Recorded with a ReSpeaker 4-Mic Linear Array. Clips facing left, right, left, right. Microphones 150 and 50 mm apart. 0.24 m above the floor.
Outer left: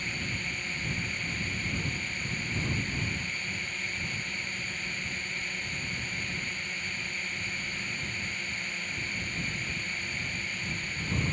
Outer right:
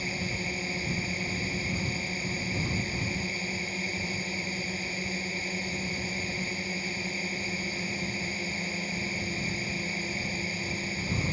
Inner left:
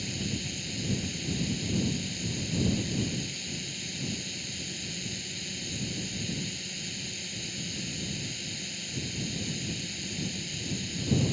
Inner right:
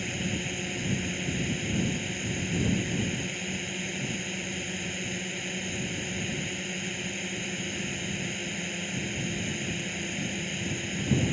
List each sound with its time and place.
0.0 s a drone: 35° right (ahead or behind)